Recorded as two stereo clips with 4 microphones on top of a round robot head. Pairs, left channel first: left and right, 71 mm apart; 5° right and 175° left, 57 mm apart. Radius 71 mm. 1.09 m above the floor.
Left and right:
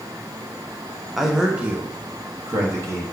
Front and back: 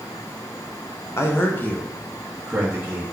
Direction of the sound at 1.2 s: Straight ahead.